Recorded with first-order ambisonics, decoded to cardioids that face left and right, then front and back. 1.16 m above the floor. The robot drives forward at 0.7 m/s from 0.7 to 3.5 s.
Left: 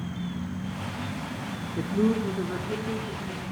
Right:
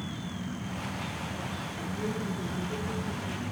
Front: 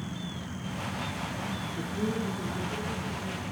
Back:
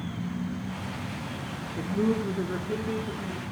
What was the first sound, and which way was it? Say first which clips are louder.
A man speaking: left 11 dB, back 7 dB; 100° left.